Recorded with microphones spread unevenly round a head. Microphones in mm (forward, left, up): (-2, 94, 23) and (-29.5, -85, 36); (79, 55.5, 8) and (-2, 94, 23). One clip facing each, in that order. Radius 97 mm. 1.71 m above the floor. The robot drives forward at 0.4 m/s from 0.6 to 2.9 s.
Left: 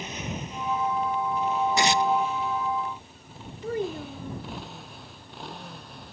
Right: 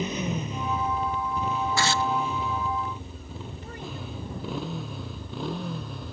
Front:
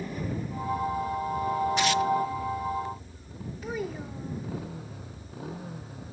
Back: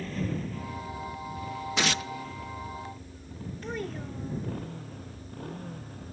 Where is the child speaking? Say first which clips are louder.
Left 13 dB, front 2 dB; 65° left.